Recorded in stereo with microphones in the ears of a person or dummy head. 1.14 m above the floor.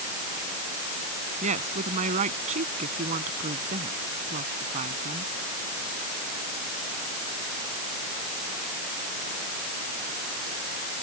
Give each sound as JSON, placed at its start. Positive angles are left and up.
{"t": 1.4, "sound": "a woman speaking", "side_deg": -35}